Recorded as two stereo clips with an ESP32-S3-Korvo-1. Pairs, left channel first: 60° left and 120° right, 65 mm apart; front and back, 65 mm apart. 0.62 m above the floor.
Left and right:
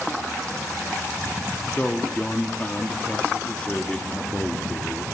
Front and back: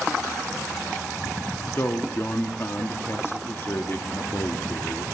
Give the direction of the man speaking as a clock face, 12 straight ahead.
12 o'clock.